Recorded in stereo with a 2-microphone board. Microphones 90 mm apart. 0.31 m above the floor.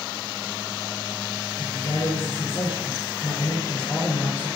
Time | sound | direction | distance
1.6 | a man speaking | 75° left (ahead or behind) | 4 m